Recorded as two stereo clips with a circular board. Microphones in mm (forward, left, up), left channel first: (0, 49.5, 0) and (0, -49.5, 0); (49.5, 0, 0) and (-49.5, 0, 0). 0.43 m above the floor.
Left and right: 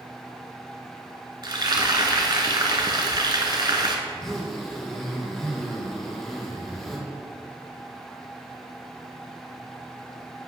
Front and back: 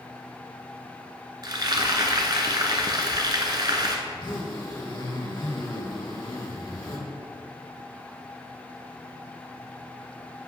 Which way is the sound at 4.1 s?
5° left.